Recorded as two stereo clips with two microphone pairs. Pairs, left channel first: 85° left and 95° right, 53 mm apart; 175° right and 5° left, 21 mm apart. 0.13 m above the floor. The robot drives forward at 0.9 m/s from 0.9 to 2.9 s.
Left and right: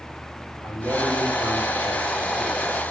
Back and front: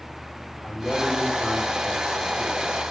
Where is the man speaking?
100° left, 7.5 m; by 2.8 s 115° left, 8 m.